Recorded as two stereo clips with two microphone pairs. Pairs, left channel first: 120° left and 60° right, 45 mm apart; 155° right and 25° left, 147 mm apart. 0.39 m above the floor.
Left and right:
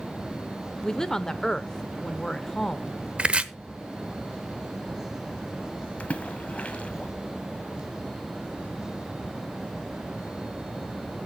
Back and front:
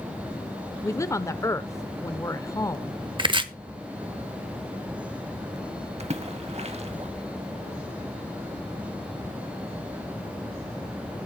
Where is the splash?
65° left, 1.2 m.